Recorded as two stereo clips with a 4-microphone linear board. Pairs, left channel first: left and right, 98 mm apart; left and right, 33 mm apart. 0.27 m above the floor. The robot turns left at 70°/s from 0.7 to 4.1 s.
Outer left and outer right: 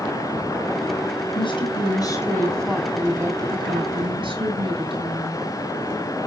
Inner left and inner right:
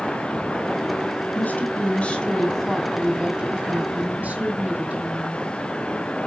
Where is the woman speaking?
95° left, 2.5 m; by 5.4 s 95° right, 2.5 m.